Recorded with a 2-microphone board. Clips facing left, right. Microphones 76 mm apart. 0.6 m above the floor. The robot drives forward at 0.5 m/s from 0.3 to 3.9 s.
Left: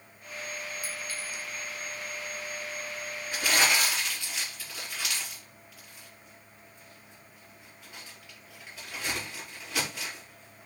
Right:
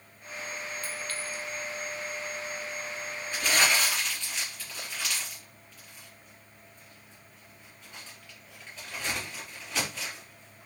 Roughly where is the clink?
Centre.